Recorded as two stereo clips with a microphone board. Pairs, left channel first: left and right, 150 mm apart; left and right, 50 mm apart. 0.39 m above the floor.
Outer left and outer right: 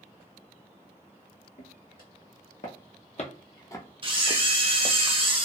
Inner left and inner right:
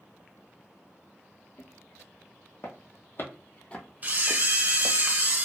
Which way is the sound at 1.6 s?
75° left (ahead or behind).